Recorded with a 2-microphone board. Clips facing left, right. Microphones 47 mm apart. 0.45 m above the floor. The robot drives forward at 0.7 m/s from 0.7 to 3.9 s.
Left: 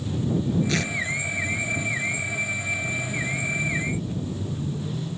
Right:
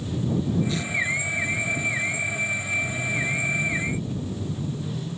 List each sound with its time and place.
0.7 s tearing paper: 65° left (ahead or behind)